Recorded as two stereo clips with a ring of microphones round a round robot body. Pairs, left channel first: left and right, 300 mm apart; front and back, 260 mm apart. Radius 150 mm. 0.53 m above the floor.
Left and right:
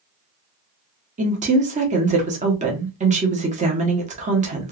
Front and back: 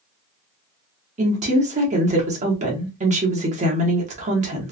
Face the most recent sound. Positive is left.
turn(degrees=-140)